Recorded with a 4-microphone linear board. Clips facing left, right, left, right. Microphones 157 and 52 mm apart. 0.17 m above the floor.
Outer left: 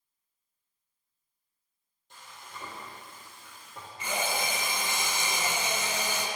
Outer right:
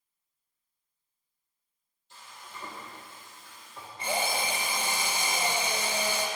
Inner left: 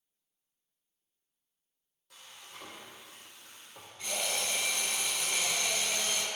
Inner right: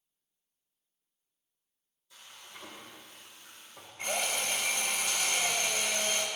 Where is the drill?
35° right (ahead or behind), 1.8 m.